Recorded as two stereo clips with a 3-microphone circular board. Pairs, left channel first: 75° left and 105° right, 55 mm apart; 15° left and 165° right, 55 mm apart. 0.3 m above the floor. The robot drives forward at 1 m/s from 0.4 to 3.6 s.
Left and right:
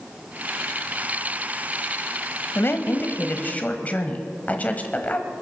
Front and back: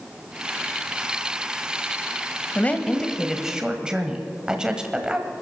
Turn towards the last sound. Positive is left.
turn(degrees=125)